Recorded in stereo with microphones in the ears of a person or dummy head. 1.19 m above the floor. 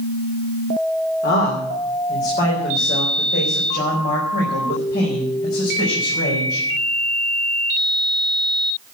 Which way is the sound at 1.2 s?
60° left (ahead or behind).